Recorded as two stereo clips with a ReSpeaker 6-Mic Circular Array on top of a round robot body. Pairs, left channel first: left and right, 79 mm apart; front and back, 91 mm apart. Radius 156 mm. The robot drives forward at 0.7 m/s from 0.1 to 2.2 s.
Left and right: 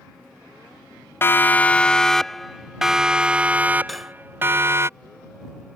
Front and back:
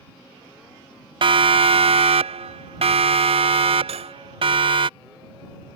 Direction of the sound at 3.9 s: Straight behind.